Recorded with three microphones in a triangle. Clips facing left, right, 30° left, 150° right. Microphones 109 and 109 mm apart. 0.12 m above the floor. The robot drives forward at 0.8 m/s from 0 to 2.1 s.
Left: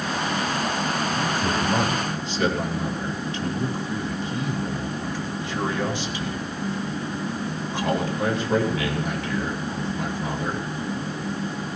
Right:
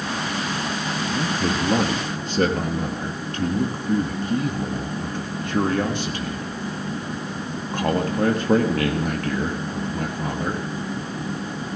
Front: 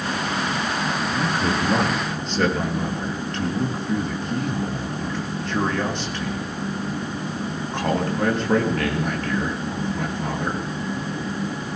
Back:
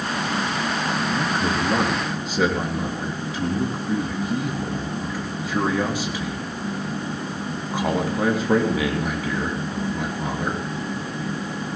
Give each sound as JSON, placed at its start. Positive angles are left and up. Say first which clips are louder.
{"t": 1.1, "sound": "a man speaking", "louder": "right 1 dB, even", "azimuth_deg": -55, "distance_m": 4.0}